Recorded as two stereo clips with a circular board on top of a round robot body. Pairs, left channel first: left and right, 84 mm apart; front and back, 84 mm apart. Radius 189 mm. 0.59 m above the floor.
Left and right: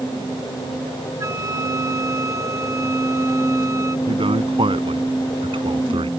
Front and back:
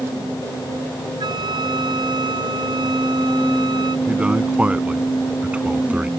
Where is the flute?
145° right.